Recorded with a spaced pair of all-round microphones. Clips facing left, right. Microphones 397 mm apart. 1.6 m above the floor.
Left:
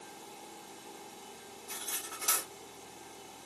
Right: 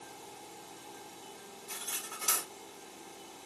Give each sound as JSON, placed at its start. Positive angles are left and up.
{"t": 1.7, "sound": "cutlery clinking", "side_deg": -40, "distance_m": 2.5}